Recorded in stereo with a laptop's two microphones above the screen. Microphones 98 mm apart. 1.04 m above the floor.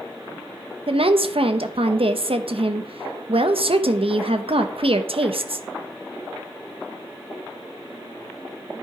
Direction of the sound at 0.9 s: 75° right (ahead or behind).